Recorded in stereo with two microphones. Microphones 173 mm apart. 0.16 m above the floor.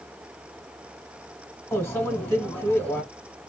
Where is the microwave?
15° left (ahead or behind), 1.2 m.